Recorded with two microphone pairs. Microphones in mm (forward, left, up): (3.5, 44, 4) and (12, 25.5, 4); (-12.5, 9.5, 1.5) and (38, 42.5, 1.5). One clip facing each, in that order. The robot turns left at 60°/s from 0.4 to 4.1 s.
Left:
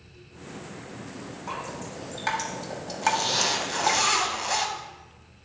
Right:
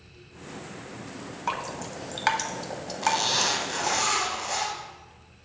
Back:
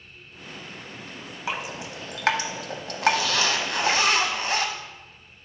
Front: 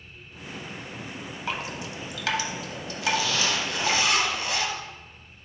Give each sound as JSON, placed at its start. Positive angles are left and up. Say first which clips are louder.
{"t": 1.5, "sound": "dripping", "louder": "right 4 dB, back 1 dB", "azimuth_deg": -70, "distance_m": 0.6}
{"t": 3.0, "sound": "a zipper", "louder": "even, back 4 dB", "azimuth_deg": -125, "distance_m": 0.8}